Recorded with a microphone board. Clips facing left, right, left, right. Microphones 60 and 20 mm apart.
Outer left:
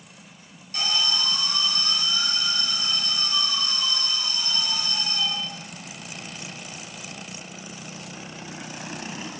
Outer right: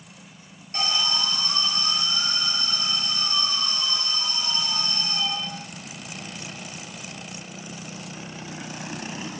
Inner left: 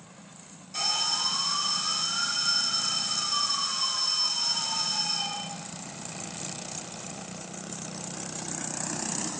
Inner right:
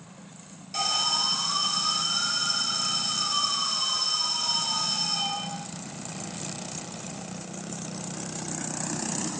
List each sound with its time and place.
0.7 s an alarm: 35° right (ahead or behind), 3.5 m